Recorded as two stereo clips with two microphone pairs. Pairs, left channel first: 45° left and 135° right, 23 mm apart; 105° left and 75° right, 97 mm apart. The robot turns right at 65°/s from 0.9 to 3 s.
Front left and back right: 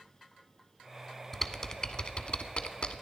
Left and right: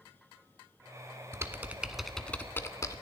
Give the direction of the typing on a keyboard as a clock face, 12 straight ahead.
1 o'clock.